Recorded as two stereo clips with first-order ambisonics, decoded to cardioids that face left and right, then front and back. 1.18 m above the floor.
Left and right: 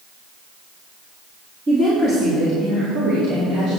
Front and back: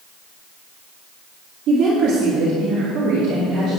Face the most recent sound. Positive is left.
turn(degrees=-125)